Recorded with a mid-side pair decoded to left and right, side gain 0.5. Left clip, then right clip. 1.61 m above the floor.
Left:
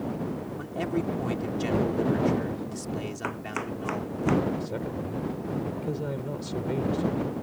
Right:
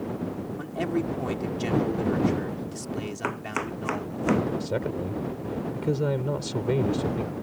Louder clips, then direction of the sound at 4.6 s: Right 4 dB; 40° right.